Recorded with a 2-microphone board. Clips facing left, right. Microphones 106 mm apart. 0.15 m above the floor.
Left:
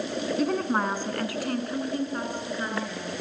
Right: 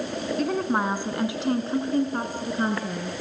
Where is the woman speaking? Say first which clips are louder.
Right 1 dB; centre (ahead or behind), 1.5 m; by 3.1 s 50° right (ahead or behind), 2.5 m.